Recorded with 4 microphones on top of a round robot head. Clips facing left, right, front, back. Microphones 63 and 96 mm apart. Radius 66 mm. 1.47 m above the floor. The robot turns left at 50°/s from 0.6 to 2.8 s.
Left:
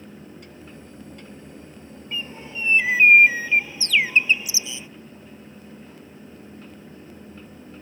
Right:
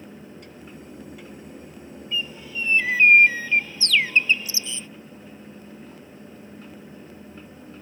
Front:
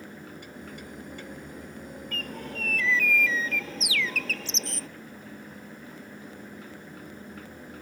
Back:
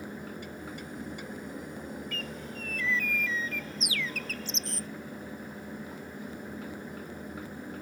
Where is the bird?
50° left; by 4.9 s 15° left.